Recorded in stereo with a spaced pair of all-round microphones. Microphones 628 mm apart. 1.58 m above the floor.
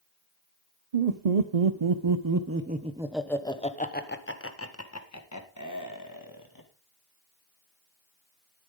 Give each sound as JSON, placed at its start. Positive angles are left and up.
{"t": 0.9, "sound": "laughter", "side_deg": -85, "distance_m": 1.0}